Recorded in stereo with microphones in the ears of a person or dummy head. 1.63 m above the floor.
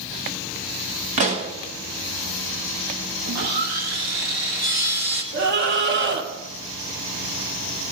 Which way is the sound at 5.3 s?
65° right (ahead or behind).